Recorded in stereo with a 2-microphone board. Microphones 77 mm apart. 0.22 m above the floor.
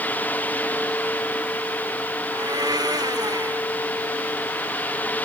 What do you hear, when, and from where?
2.3 s a blender: 55° right (ahead or behind)